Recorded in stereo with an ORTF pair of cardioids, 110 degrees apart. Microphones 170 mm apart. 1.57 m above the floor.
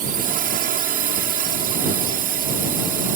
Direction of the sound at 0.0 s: 55° right.